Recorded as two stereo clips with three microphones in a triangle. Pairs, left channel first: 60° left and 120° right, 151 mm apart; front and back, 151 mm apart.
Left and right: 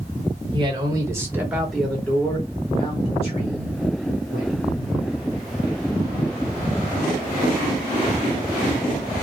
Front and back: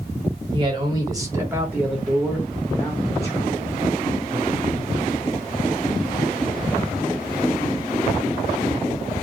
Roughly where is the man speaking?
Behind right.